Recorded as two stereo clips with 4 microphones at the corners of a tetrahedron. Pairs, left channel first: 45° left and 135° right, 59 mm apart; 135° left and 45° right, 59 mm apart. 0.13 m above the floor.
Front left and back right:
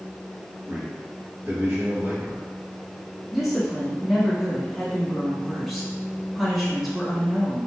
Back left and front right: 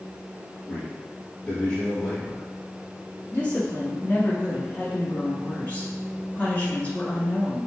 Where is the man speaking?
160° right, 2.0 m.